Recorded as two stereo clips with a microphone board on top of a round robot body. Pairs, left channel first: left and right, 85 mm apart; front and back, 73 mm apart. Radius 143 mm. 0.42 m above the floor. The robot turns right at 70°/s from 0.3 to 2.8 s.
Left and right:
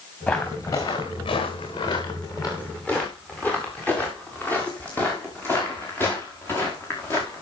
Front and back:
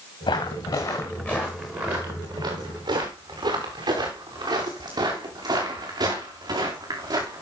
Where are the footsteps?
5° left, 3.5 m; by 7.4 s 150° left, 6.5 m.